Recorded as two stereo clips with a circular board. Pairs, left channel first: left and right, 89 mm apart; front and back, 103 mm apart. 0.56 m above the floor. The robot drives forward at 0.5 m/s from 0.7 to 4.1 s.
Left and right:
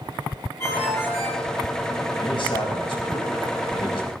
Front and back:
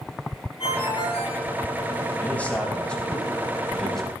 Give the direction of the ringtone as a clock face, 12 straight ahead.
11 o'clock.